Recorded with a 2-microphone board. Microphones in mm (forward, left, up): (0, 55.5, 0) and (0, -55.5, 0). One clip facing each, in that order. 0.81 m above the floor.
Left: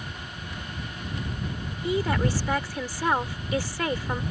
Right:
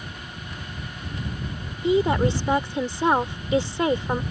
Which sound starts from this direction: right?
A woman speaking, at 1.8 s.